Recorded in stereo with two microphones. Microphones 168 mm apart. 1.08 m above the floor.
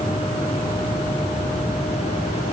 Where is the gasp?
No gasp in this recording.